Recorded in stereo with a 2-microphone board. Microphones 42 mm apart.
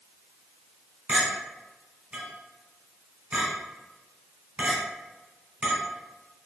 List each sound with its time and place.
1.1 s a clink: 30° right (ahead or behind), 1.7 m